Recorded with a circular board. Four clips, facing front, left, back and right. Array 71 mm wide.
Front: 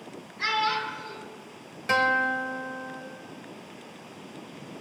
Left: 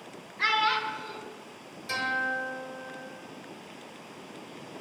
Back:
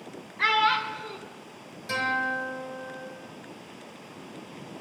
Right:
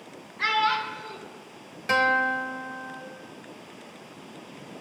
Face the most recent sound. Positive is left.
turn(degrees=-45)